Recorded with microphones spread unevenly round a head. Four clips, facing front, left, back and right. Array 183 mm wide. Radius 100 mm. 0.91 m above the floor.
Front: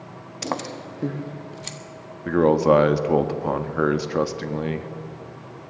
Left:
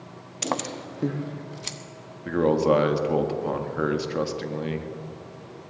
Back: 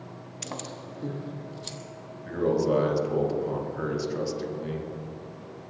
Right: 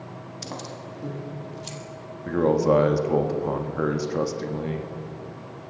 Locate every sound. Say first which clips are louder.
0.4 s keys jangling: left 9 dB, front 10 dB; 40° left, 0.7 m; by 1.8 s 55° left, 1.7 m
2.2 s a man speaking: even, front 8 dB; 5° left, 1.4 m